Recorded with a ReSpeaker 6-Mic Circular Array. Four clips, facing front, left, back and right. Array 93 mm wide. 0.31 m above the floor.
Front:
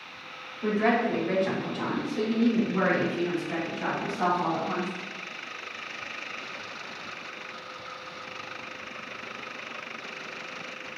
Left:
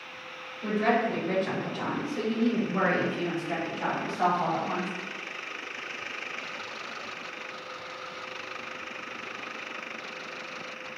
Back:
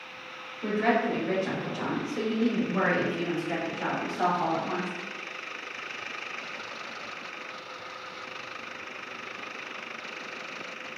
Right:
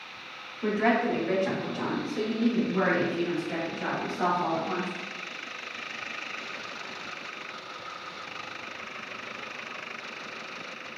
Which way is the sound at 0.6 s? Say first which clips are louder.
Right 1 dB, front 1 dB; 90° right.